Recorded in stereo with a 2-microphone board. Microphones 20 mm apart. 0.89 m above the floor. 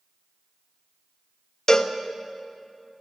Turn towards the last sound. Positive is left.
turn(degrees=30)  # may be behind; listen again after turning